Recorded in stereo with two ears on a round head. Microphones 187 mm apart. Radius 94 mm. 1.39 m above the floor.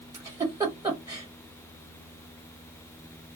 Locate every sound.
0.1 s a giggle: 15° right (ahead or behind), 1.4 m